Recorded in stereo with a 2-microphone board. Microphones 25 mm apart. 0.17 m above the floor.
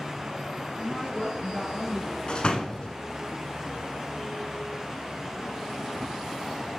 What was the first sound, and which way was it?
A woman speaking, 10° left (ahead or behind).